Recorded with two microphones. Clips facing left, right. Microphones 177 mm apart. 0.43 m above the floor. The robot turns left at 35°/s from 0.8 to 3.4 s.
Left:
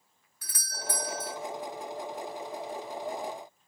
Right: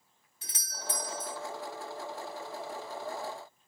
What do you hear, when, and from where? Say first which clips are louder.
0.4 s a doorbell: left 3 dB; 25° right (ahead or behind), 1.2 m; by 1.4 s 20° right (ahead or behind), 1.2 m